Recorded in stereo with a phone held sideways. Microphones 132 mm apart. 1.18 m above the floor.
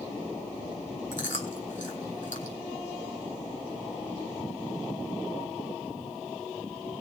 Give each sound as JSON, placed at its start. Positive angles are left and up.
{"t": 1.1, "sound": "chewing", "side_deg": 70, "distance_m": 3.0}